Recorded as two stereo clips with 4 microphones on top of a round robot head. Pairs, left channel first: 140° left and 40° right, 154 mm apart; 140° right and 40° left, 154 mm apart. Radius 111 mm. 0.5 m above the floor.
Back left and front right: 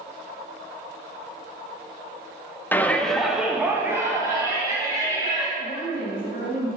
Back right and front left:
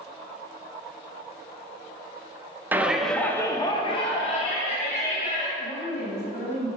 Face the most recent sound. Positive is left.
turn(degrees=175)